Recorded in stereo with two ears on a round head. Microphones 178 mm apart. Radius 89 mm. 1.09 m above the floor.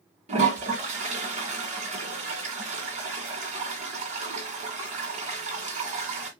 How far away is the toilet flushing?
About 2 m.